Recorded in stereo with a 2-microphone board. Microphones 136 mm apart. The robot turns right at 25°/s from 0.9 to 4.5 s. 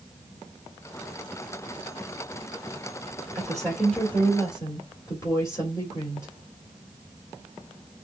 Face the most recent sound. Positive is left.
turn(degrees=20)  # may be behind; listen again after turning